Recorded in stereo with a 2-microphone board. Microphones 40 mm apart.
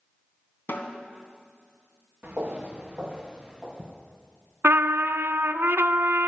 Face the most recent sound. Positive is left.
turn(degrees=-75)  # may be behind; listen again after turning